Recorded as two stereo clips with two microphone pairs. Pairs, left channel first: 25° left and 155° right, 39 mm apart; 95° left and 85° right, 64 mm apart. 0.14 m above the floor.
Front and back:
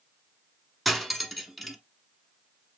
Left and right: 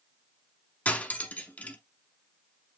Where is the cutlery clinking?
120° left, 0.7 m.